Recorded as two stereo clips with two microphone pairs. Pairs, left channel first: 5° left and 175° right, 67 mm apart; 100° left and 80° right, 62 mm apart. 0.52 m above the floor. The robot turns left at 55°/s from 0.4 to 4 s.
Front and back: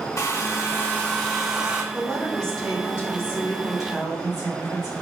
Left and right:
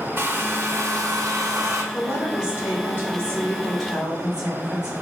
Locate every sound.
0.2 s a hair dryer: 35° right, 0.8 m; by 1.8 s 110° right, 0.8 m
1.9 s a woman speaking: 105° left, 1.6 m; by 4.9 s 5° right, 1.6 m